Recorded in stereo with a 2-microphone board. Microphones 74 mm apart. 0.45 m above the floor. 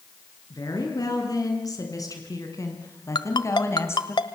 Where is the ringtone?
65° left (ahead or behind), 1.2 m.